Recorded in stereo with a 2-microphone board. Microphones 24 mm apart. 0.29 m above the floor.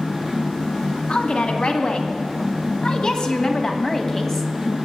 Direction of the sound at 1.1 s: 60° left (ahead or behind).